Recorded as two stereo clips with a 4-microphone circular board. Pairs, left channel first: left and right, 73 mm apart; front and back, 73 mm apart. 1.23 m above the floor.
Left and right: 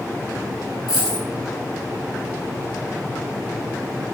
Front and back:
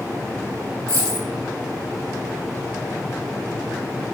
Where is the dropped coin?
165° right, 1.7 m.